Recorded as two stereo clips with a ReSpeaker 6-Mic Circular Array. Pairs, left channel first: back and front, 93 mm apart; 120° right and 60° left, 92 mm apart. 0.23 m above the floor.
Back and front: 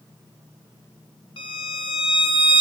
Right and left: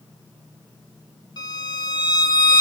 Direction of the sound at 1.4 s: 160° right.